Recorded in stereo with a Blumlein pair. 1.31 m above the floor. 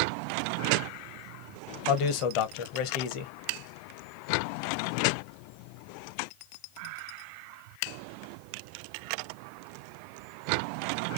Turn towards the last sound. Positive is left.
turn(degrees=45)